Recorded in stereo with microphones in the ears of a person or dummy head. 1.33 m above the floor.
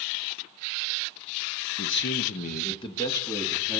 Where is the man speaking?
55° left (ahead or behind), 0.8 m; by 3.8 s 5° left (ahead or behind), 1.5 m.